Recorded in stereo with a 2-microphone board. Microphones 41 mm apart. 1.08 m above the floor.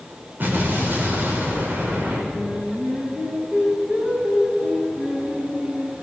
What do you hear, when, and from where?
0.4 s an explosion: 50° right (ahead or behind), 5 m
2.3 s singing: 40° right (ahead or behind), 6 m